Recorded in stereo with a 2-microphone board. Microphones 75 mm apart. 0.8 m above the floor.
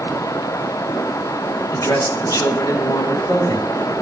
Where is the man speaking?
45° left (ahead or behind), 1.1 m; by 3.9 s 55° left (ahead or behind), 2.5 m.